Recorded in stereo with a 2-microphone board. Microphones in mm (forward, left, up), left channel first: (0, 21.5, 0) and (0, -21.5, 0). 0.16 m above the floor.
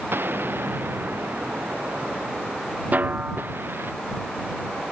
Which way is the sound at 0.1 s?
60° right (ahead or behind).